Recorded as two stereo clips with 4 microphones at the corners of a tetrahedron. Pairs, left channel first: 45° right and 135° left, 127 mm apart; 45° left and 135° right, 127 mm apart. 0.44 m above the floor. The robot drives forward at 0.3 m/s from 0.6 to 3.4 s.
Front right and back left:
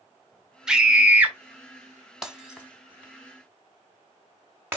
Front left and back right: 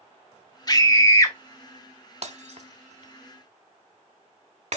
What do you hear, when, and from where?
0.7 s a scream: 55° left, 1.1 m; by 1.4 s 75° left, 1.1 m
2.2 s breaking glass: 140° right, 0.8 m; by 4.8 s 150° right, 1.1 m